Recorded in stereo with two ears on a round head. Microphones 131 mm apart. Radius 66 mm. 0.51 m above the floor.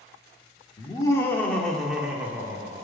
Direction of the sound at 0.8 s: 30° left (ahead or behind).